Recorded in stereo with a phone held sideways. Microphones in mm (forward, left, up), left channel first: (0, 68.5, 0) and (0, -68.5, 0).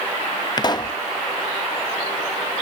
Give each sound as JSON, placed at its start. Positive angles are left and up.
{"t": 0.6, "sound": "a pop", "side_deg": 30}